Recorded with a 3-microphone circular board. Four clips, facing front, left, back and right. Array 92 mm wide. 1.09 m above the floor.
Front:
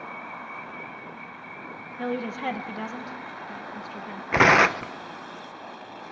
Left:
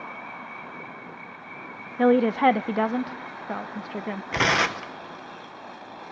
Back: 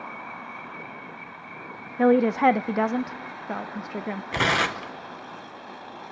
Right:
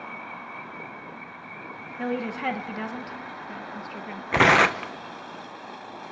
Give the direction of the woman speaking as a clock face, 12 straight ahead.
7 o'clock.